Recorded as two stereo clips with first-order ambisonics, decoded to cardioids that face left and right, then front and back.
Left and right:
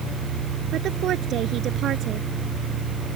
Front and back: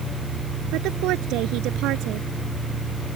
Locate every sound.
0.7 s a woman speaking: 140° right